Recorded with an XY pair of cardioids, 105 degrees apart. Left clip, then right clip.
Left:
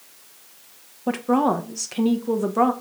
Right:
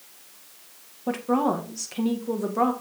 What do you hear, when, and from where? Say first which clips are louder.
1.1 s a woman speaking: left 3 dB; 25° left, 1.8 m